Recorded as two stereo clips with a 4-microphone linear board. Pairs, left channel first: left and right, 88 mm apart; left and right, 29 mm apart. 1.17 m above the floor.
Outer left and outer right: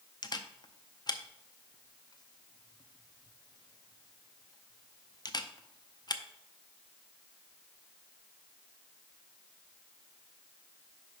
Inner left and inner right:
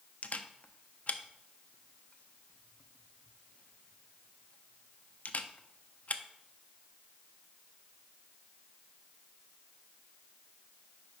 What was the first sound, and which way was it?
A camera shutter, 50° left (ahead or behind).